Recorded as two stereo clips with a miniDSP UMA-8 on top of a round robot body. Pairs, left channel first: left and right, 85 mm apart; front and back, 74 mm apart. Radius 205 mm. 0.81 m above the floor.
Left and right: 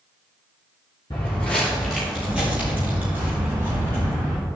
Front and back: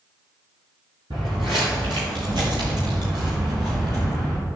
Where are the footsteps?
145° left, 0.9 m; by 4.4 s 150° right, 2 m.